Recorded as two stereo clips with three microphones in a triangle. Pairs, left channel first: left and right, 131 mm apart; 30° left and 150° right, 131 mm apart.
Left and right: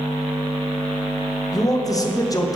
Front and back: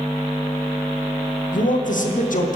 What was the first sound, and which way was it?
A man speaking, 30° left.